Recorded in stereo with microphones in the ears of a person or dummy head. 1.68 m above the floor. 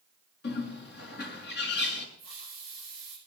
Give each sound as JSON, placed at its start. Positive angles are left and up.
{"t": 0.4, "sound": "a bird", "side_deg": 65, "distance_m": 5.5}
{"t": 2.2, "sound": "a hiss", "side_deg": 45, "distance_m": 10.0}